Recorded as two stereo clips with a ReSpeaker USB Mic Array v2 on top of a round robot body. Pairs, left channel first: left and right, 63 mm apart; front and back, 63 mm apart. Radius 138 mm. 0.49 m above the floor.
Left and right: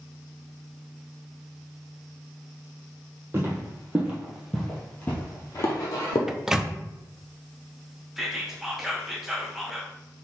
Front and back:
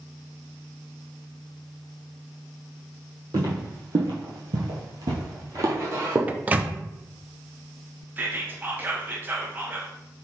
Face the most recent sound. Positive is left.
turn(degrees=-170)